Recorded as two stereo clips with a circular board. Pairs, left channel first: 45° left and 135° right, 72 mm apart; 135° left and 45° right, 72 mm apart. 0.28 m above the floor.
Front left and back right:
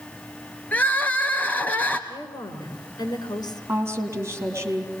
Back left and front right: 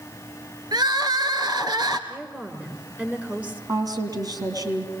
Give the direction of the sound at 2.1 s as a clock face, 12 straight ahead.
11 o'clock.